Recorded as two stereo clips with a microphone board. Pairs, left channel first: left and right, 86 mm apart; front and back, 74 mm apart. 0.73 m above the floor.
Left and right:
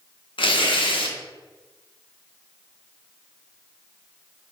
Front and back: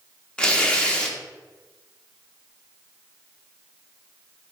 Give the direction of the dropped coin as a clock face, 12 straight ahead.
No dropped coin in this recording.